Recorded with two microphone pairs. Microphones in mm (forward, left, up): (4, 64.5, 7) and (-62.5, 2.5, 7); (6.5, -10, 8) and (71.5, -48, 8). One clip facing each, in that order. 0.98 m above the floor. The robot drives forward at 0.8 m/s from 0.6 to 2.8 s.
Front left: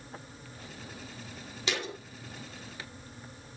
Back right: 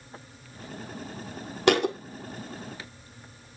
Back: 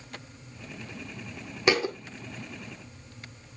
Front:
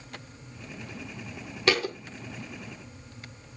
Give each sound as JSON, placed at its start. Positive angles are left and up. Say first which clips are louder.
{"t": 1.7, "sound": "a thud", "louder": "back right 14 dB, back 1 dB", "azimuth_deg": -140, "distance_m": 1.6}